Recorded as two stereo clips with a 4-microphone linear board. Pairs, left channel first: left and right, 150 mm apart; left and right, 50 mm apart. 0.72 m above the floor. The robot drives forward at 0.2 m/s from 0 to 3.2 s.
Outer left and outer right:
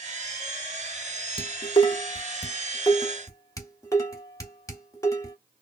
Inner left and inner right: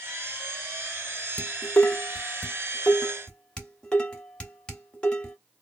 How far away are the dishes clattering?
About 0.6 m.